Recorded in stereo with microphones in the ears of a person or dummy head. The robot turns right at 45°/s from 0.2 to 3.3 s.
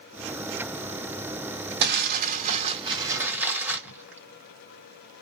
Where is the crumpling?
65° right (ahead or behind), 2.5 m; by 5.2 s 10° right (ahead or behind), 2.5 m.